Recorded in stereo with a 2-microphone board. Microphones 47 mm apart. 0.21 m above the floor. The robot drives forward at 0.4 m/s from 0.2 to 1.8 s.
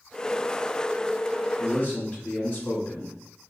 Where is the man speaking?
30° left (ahead or behind), 1.2 m.